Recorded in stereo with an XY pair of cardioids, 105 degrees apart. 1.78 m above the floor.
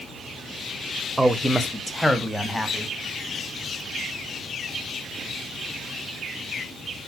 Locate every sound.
1.2 s a man speaking: 10° right, 1.1 m; by 2.9 s 15° left, 2.5 m